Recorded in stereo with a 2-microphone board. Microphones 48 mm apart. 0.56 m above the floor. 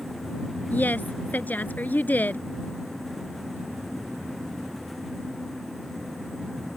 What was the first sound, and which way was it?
A woman speaking, 40° left (ahead or behind).